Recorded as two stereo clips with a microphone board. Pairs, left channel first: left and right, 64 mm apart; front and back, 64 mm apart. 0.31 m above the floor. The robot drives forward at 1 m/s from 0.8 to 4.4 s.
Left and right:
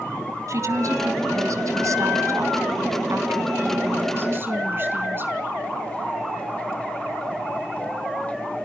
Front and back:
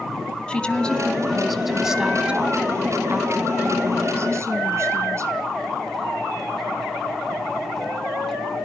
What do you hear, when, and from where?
0.5 s a woman speaking: 70° right, 2.5 m; by 5.5 s 140° right, 4 m